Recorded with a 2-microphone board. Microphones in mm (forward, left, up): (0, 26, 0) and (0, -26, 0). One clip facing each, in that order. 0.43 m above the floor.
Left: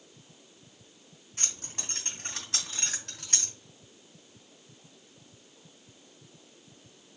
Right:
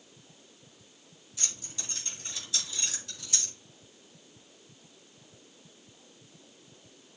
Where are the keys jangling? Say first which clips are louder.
Left 2 dB; 50° left (ahead or behind), 3 m; by 3.5 s 65° left (ahead or behind), 2 m.